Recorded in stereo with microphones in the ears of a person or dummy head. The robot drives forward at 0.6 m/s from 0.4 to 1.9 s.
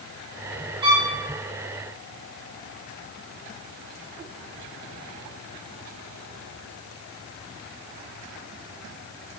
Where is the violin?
30° right (ahead or behind), 0.5 m; by 1.1 s 20° right (ahead or behind), 0.7 m.